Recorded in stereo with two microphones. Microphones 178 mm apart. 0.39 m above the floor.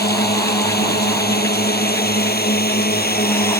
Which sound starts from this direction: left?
A drone, at 0.0 s.